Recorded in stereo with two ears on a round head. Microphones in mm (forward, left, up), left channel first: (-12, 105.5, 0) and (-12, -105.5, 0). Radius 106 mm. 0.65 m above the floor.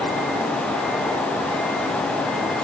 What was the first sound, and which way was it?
Only background noise.